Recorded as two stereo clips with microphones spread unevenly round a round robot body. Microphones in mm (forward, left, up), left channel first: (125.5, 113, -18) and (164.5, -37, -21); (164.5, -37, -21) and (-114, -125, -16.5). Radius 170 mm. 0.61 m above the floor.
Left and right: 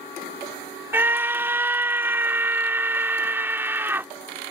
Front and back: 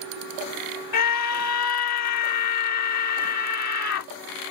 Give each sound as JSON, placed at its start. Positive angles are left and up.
{"t": 0.9, "sound": "a scream", "azimuth_deg": 0}